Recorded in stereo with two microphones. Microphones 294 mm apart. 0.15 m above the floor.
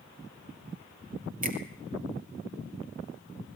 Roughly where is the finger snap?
Right.